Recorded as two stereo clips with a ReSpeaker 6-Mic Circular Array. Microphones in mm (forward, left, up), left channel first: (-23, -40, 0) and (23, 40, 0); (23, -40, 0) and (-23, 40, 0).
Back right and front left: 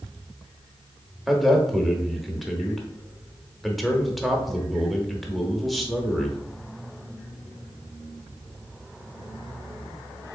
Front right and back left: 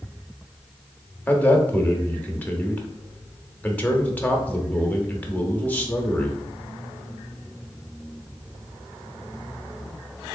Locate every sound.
1.3 s a man speaking: 25° right, 0.7 m